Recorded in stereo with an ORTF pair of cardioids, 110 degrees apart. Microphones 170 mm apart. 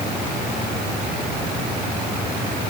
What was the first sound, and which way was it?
Only background noise.